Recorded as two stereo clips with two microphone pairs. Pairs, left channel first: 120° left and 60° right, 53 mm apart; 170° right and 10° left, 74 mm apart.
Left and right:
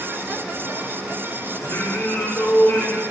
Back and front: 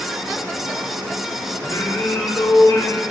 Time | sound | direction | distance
1.6 | singing | 155° left | 1.1 m